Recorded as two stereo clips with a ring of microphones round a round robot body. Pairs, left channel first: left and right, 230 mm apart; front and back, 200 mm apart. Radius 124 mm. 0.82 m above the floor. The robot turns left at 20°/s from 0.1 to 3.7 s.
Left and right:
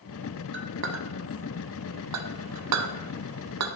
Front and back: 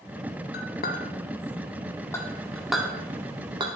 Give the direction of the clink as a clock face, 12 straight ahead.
2 o'clock.